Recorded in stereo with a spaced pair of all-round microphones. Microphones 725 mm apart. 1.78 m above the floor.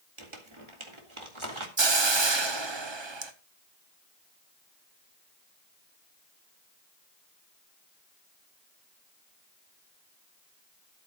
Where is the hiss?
40° right (ahead or behind), 1.0 m.